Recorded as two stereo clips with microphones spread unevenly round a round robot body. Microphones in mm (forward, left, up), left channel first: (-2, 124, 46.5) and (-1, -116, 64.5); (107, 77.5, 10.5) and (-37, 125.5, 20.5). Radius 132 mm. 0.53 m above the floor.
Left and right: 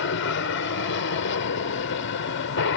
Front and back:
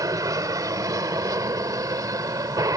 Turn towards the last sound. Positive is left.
turn(degrees=100)